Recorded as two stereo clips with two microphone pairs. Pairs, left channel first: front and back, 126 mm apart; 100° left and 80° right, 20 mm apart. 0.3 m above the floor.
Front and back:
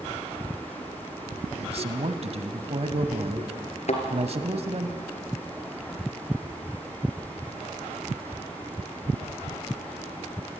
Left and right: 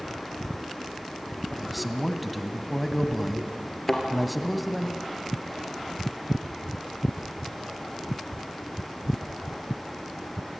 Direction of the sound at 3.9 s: 25° left.